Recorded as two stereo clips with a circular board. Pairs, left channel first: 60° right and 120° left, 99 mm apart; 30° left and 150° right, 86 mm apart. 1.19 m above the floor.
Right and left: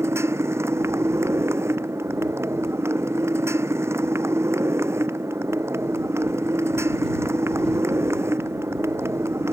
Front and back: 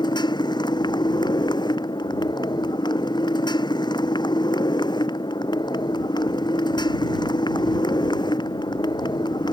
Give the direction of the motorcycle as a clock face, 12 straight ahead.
10 o'clock.